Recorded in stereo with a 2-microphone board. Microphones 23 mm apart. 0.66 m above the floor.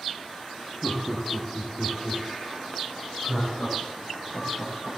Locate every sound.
0.8 s laughter: 20° left (ahead or behind), 1.3 m; by 4.9 s 80° left, 4.5 m